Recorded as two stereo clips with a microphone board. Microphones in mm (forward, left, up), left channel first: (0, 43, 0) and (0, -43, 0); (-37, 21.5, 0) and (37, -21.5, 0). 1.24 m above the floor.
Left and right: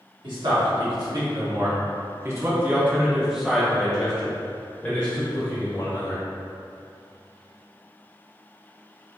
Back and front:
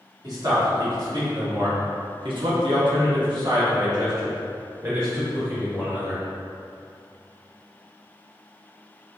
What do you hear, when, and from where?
0.2 s a man speaking: 70° right, 1.7 m; by 6.2 s 40° left, 2.0 m